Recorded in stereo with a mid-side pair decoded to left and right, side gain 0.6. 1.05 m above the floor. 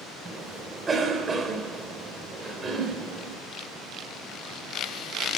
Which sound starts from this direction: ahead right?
A cough, at 0.2 s.